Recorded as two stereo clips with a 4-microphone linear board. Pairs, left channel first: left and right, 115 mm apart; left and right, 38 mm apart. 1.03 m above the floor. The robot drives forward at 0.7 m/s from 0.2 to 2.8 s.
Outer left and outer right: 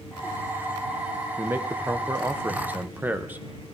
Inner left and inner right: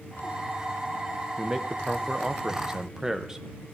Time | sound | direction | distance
1.4 | a man speaking | 15° right (ahead or behind) | 0.8 m